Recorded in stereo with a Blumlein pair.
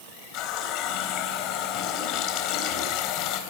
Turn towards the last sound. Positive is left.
turn(degrees=40)